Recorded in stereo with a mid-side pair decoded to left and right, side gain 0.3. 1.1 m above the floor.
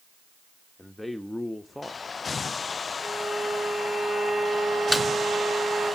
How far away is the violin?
About 4.5 m.